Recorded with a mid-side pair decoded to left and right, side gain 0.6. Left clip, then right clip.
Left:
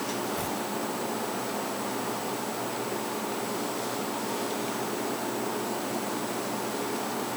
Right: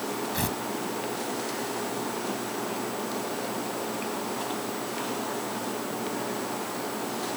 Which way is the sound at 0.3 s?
45° right.